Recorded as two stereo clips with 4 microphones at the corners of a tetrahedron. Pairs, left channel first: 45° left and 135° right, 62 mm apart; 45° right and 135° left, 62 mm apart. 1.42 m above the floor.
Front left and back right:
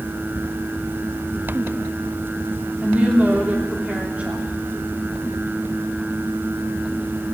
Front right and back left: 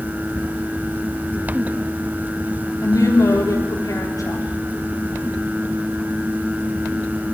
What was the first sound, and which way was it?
A woman speaking, 70° right.